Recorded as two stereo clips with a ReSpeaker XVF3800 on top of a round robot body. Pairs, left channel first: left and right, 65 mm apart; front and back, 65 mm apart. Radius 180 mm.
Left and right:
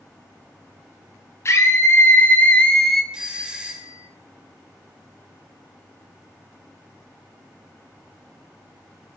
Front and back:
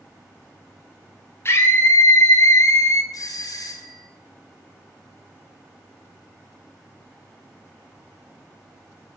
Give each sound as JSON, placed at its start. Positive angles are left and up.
{"t": 1.4, "sound": "a scream", "azimuth_deg": 45, "distance_m": 3.0}
{"t": 3.1, "sound": "a doorbell", "azimuth_deg": -15, "distance_m": 3.5}